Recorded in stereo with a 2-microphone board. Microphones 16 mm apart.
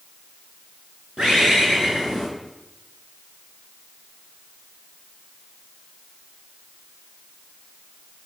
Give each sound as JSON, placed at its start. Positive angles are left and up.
{"t": 1.2, "sound": "a bird", "side_deg": -65, "distance_m": 6.0}